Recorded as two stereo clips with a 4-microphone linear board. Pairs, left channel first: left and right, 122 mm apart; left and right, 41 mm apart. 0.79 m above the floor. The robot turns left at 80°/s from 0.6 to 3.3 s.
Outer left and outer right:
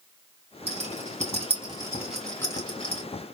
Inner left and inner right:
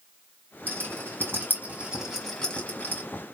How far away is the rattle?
About 2.5 m.